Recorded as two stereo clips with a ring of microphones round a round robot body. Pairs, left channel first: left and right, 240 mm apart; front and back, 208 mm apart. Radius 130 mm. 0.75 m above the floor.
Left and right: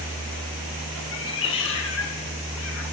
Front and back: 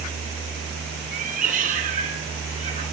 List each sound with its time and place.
1.1 s a cat meowing: 130° left, 3.5 m; by 2.8 s 125° left, 4.5 m